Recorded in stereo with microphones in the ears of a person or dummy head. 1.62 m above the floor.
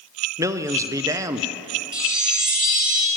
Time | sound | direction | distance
0.4 | a man speaking | 20° right (ahead or behind) | 0.6 m
1.9 | a chime | 30° right (ahead or behind) | 2.5 m